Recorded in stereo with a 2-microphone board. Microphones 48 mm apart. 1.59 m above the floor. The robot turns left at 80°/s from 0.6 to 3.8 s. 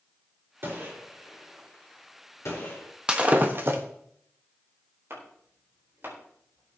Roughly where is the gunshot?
Right.